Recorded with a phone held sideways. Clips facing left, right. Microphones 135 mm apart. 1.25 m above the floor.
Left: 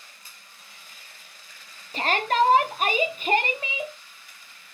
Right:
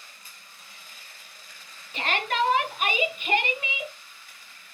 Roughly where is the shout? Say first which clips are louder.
Left 4 dB; left.